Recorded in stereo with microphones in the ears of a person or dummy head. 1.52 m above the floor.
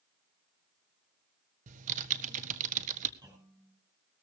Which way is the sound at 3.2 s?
20° right (ahead or behind).